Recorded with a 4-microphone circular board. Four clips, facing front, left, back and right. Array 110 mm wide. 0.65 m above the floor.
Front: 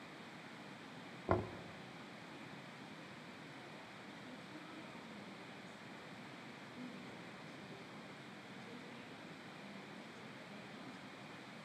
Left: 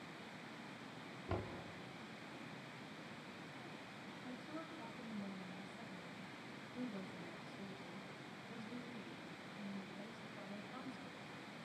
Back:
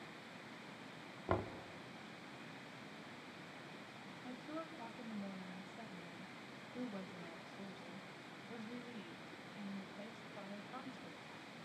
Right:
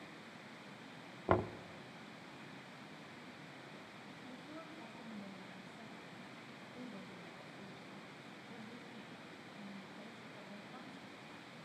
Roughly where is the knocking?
Right.